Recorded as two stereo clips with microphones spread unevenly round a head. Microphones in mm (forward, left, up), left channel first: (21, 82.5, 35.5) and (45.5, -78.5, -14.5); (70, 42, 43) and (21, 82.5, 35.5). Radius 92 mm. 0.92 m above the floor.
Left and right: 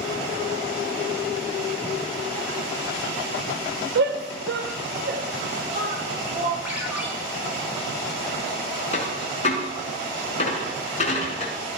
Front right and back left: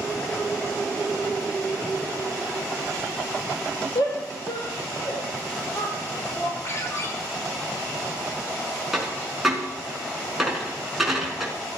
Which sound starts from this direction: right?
A shout, at 4.0 s.